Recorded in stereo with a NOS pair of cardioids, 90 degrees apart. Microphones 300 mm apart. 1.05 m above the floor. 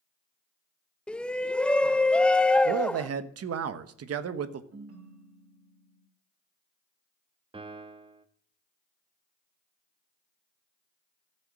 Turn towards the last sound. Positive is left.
turn(degrees=-20)